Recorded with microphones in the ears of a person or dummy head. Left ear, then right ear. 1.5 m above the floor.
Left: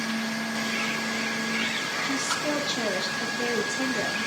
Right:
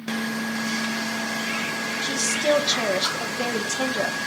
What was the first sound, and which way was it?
A woman speaking, 25° right (ahead or behind).